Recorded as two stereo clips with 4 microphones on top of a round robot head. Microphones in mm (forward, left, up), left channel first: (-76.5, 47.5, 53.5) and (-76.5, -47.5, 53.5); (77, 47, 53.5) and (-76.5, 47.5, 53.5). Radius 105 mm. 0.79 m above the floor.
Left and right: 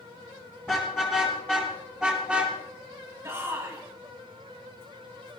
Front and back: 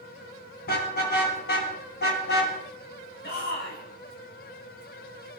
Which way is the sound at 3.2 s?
20° right.